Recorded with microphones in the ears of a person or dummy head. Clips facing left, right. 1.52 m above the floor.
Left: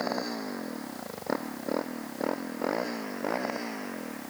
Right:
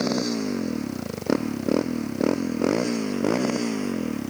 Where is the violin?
No violin in this recording.